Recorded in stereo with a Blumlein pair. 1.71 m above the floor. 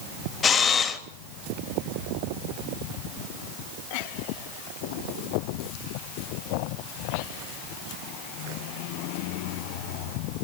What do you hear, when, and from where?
0.4 s a camera shutter: 20° left, 2.5 m